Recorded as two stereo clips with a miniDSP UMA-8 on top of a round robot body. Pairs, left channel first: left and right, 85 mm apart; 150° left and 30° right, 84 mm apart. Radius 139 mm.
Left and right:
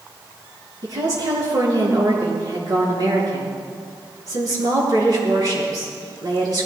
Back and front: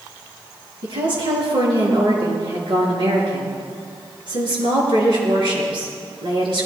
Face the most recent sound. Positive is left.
turn(degrees=-50)